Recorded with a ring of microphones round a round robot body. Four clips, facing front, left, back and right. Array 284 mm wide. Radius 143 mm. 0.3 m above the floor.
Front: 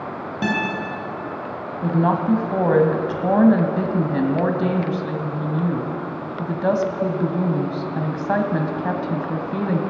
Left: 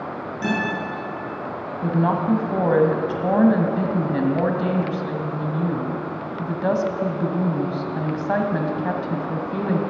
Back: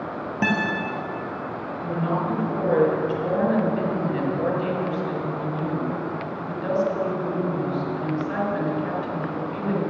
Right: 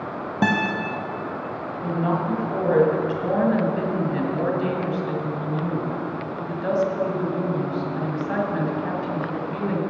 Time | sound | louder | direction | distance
0.4 | a guitar | right 3 dB, front 1 dB | 105° right | 3 m
1.8 | a woman speaking | left 3 dB, front 6 dB | 30° left | 1.7 m